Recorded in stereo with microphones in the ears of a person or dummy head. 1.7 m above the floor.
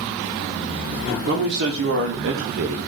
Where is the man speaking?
60° right (ahead or behind), 1.2 m; by 2.8 s 30° right (ahead or behind), 0.5 m.